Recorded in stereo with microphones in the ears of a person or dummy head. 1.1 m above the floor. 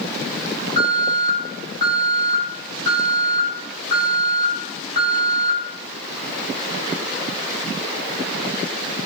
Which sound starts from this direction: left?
An alarm, at 0.8 s.